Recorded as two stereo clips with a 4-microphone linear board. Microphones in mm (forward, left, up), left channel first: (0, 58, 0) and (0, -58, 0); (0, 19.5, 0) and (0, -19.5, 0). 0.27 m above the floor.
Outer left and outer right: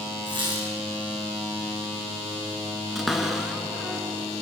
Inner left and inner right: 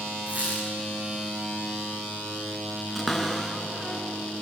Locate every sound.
0.3 s a squeak: 40° right (ahead or behind), 6.5 m
3.0 s a cupboard door: centre (ahead or behind), 3 m